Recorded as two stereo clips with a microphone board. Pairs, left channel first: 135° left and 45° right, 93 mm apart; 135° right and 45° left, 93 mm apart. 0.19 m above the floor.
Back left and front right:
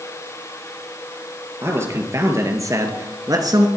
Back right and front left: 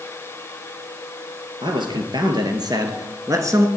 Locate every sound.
1.6 s a man speaking: 15° left, 3 m; by 3.7 s 10° right, 2 m